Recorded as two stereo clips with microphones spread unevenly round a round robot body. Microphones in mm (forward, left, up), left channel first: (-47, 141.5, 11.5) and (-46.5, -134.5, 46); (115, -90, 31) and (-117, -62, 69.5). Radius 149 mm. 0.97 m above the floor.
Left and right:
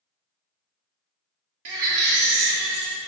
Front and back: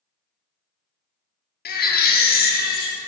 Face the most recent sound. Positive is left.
turn(degrees=-65)